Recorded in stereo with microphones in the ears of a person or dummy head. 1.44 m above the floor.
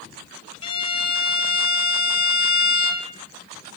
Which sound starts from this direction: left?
A violin, at 0.6 s.